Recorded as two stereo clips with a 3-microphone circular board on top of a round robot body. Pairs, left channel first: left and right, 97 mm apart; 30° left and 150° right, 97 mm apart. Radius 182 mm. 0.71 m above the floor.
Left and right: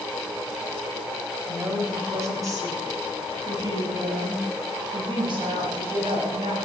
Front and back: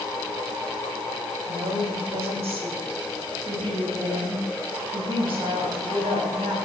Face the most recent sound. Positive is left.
turn(degrees=-125)